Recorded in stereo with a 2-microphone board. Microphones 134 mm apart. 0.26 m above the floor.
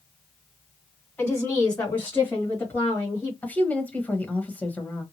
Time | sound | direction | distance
1.2 | a woman speaking | 10° left (ahead or behind) | 1.9 m
3.4 | a woman speaking | 10° left (ahead or behind) | 1.0 m